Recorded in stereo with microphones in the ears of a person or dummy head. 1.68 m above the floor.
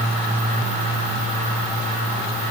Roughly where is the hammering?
I don't hear hammering.